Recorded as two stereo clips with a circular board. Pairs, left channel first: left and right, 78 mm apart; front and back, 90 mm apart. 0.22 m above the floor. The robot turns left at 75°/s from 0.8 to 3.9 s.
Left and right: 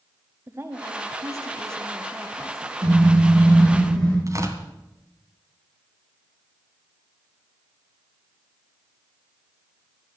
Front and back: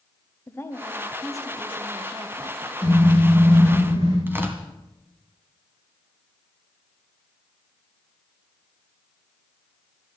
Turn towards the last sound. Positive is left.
turn(degrees=-120)